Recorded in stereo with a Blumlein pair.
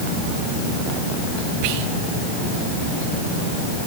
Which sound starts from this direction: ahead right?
Whispering, at 1.6 s.